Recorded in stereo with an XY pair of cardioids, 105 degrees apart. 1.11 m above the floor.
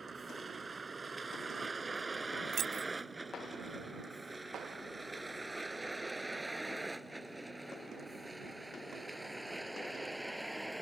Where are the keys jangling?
55° right.